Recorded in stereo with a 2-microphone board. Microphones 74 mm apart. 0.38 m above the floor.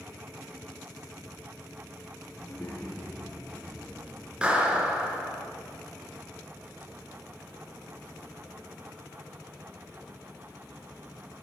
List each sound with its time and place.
2.4 s a child speaking: 20° left (ahead or behind), 5.5 m; by 4.3 s 15° left (ahead or behind), 5 m
4.4 s a clap: 15° right (ahead or behind), 4 m